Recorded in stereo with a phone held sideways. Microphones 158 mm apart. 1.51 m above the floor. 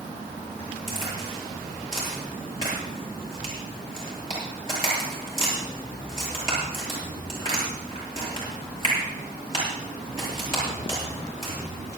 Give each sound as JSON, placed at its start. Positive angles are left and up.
{"t": 0.9, "sound": "a crack", "side_deg": 35, "distance_m": 9.0}